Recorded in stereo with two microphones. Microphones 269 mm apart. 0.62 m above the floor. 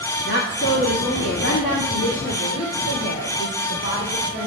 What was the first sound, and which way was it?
A woman speaking, 40° left (ahead or behind).